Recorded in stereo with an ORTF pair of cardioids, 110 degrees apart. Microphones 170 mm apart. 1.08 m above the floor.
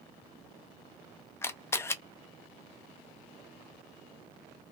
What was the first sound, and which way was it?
A camera shutter, 15° left.